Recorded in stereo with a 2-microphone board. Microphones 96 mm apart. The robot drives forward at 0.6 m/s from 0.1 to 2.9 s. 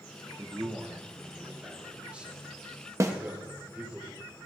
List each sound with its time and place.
0.4 s a man speaking: 20° right (ahead or behind), 2.0 m; by 4.0 s 10° right (ahead or behind), 3.5 m
3.0 s a snare drum: 30° right (ahead or behind), 1.3 m